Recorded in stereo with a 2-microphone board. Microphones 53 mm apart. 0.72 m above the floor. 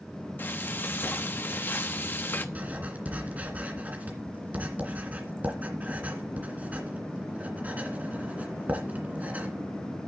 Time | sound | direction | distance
0.4 | frying | 40° left (ahead or behind) | 0.9 m
2.5 | writing | 30° right (ahead or behind) | 2 m